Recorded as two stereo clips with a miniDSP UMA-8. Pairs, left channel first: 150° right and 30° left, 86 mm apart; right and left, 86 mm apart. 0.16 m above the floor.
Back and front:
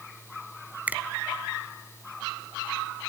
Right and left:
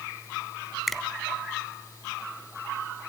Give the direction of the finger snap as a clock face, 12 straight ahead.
12 o'clock.